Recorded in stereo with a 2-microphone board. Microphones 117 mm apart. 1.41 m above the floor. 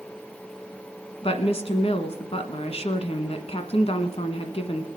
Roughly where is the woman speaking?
Left.